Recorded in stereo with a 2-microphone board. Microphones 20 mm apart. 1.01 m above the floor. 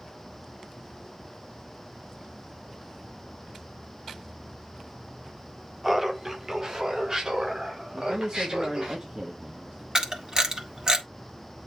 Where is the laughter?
10° right (ahead or behind), 1.0 m; by 8.9 s 35° right (ahead or behind), 4 m.